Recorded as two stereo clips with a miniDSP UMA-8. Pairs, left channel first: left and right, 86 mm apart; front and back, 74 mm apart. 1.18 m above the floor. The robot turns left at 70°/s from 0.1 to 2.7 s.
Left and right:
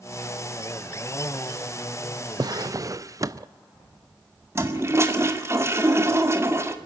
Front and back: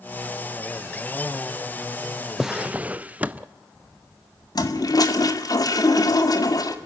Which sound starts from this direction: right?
A drawer, at 2.4 s.